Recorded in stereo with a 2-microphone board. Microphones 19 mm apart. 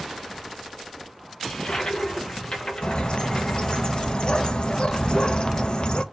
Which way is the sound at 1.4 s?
60° left (ahead or behind).